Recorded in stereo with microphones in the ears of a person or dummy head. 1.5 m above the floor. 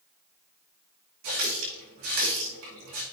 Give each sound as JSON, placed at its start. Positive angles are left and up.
{"t": 1.2, "sound": "a running tap", "side_deg": -65, "distance_m": 2.0}